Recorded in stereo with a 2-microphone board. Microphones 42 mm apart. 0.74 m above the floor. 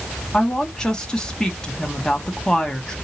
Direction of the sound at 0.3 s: 15° left (ahead or behind).